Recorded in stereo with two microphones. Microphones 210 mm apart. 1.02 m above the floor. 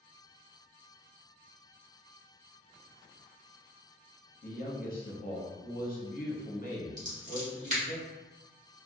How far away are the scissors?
About 1.2 m.